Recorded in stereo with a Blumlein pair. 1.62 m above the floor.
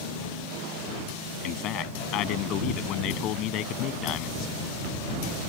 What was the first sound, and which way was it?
A man speaking, 35° left.